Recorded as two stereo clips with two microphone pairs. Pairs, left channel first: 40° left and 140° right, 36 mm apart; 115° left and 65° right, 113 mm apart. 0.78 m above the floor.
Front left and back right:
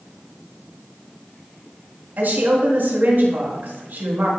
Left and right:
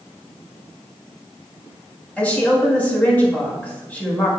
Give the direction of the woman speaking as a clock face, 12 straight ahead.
6 o'clock.